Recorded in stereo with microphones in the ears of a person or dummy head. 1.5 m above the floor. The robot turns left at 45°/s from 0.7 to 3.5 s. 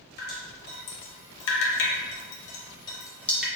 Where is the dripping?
55° left (ahead or behind), 0.7 m; by 3.5 s centre (ahead or behind), 0.7 m.